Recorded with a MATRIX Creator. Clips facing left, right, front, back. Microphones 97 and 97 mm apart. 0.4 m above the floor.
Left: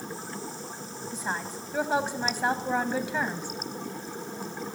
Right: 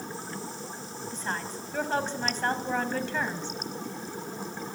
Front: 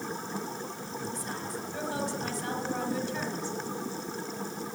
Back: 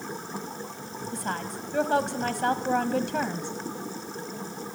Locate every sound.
1.1 s a woman speaking: 170° left, 2 m